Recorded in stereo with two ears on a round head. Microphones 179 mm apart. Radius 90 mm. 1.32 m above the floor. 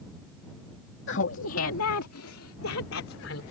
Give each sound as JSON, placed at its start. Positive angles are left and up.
{"t": 1.1, "sound": "laughter", "side_deg": 65}